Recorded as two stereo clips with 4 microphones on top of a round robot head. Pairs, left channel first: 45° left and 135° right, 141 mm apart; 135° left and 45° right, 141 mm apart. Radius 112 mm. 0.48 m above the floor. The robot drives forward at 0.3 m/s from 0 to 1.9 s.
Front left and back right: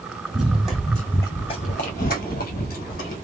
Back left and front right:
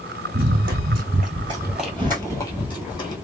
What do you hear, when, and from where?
0.3 s running footsteps: 50° right, 1.0 m; by 3.1 s 75° left, 1.2 m